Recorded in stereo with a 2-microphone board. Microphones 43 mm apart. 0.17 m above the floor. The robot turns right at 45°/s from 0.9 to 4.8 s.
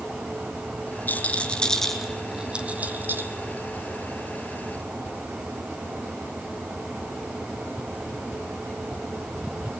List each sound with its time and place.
1.1 s a rattle: 45° left (ahead or behind), 1.7 m; by 3.3 s 55° right (ahead or behind), 1.7 m